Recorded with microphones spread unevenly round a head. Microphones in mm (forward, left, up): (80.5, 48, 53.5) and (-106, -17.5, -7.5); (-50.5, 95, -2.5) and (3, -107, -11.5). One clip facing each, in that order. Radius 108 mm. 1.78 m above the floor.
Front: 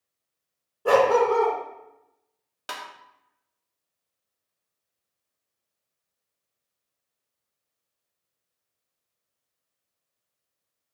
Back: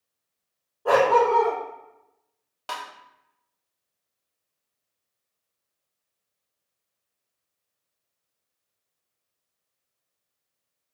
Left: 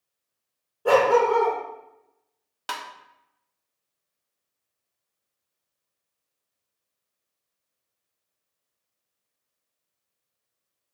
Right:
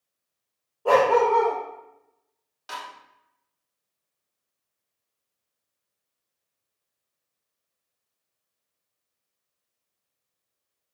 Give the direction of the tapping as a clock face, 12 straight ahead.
9 o'clock.